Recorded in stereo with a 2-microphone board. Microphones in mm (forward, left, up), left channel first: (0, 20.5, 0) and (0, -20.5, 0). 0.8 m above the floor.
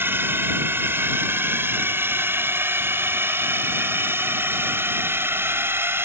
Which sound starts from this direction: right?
A drone, at 0.0 s.